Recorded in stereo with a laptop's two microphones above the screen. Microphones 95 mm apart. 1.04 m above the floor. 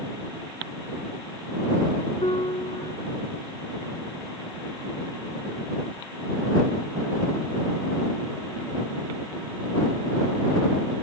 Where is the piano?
80° left.